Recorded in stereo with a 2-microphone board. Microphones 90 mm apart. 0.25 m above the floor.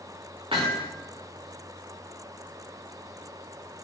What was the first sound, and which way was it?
Hammering, 85° right.